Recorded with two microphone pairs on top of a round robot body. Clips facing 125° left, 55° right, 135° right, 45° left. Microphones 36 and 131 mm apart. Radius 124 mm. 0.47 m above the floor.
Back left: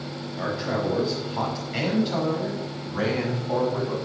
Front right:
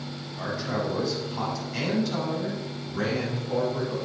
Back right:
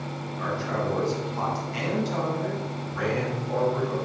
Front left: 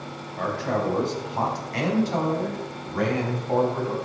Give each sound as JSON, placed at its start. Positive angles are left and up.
{"t": 0.4, "sound": "a man speaking", "azimuth_deg": 65, "distance_m": 5.0}